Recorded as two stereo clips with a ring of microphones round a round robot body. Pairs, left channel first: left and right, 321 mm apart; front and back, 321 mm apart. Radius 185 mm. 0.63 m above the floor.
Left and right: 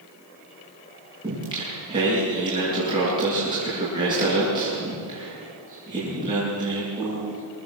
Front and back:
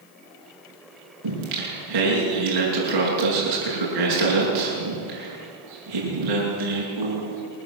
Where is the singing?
170° right, 8.5 m.